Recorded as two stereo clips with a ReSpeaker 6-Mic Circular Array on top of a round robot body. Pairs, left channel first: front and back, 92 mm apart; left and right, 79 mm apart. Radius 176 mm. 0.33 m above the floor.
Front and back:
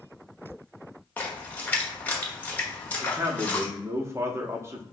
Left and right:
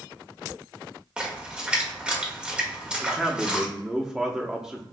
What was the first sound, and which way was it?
A splash, 35° right.